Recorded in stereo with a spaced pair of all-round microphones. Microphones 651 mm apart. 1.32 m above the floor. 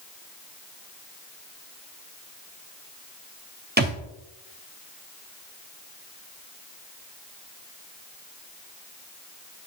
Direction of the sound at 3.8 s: 15° right (ahead or behind).